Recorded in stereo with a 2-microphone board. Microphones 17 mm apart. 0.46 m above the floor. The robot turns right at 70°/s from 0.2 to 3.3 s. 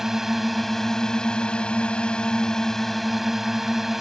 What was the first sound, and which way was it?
A drone, 20° right.